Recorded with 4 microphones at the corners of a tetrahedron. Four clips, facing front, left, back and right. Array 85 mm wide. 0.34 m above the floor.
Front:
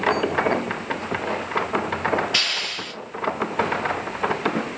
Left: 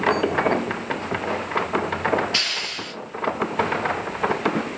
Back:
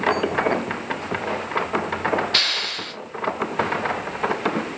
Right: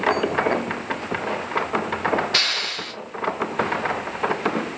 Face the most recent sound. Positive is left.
turn(degrees=-120)